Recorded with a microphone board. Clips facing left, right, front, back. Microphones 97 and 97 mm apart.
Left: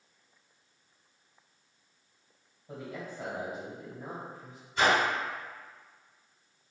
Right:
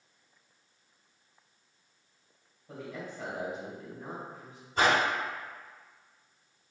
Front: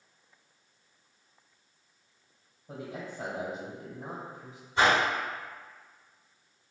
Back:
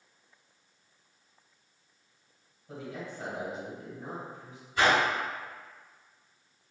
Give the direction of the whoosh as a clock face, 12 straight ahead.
2 o'clock.